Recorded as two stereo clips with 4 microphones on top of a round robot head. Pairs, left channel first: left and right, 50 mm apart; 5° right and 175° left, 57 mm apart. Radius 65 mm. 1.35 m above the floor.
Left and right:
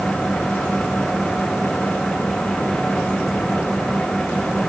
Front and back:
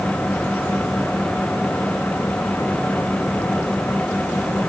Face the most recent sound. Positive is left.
No sound to turn to.